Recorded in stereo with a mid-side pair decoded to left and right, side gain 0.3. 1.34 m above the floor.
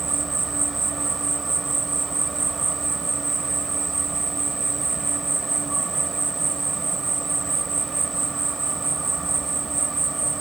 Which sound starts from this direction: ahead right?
An insect, at 0.0 s.